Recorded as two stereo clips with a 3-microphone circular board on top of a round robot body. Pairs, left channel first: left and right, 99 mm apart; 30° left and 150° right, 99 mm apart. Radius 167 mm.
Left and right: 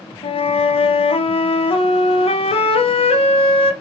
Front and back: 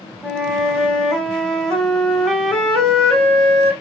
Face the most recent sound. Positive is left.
turn(degrees=120)